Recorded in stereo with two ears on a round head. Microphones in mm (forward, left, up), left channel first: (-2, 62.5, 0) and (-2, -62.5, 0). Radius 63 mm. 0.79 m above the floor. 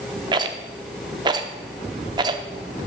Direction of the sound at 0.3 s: 30° right (ahead or behind).